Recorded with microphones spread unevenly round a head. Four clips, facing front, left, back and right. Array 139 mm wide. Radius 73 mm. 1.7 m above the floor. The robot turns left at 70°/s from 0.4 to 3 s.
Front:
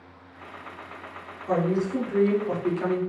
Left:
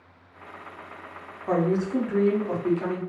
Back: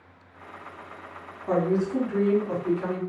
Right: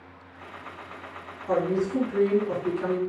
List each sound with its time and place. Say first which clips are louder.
1.5 s a woman speaking: left 1 dB, back 1 dB; 110° left, 0.7 m; by 3.0 s 5° left, 0.7 m